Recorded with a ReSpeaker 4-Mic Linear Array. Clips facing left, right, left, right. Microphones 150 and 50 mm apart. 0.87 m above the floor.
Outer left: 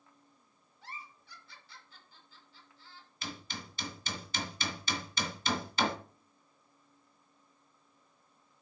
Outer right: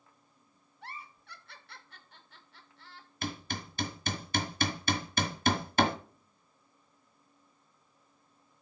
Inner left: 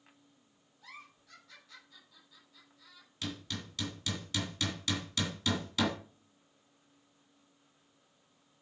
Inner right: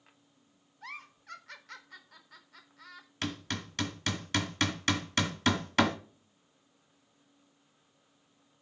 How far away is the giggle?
About 1.6 m.